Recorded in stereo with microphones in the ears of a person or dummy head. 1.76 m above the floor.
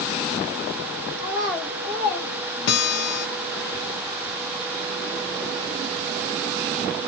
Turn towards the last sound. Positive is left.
turn(degrees=65)  # may be behind; listen again after turning